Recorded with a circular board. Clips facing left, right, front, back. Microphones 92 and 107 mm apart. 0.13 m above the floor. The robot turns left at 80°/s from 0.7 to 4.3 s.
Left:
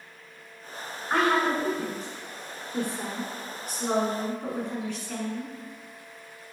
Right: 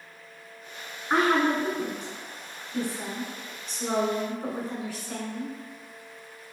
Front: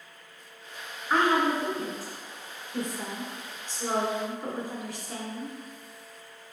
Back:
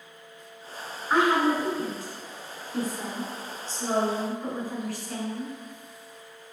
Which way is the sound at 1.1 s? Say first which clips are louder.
Right 1 dB, back 2 dB; 115° right.